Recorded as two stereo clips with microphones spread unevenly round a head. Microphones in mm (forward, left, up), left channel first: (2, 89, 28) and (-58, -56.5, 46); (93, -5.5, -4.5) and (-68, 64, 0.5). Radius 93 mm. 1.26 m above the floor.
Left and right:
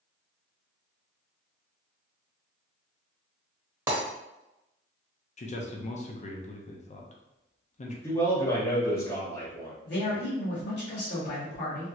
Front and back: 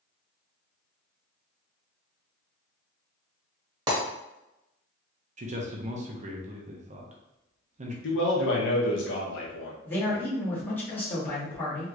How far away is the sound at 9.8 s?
About 1.6 m.